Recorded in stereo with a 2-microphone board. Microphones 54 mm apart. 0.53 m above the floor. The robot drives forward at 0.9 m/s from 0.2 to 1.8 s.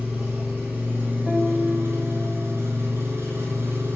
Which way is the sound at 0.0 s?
25° right (ahead or behind).